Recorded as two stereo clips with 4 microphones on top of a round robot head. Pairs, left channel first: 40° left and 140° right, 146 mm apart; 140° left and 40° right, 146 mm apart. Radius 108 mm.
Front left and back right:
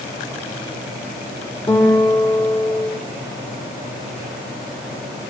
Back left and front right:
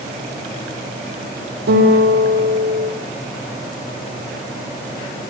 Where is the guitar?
45° right, 7 m.